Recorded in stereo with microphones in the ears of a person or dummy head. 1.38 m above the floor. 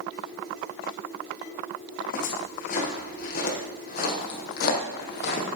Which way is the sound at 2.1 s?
40° left (ahead or behind).